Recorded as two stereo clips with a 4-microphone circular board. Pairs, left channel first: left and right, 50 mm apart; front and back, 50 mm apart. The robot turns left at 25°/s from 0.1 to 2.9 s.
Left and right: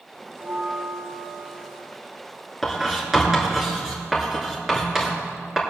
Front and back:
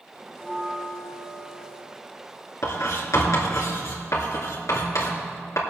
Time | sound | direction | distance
0.3 | a bell | 75° right | 3 m
2.6 | writing | straight ahead | 2.5 m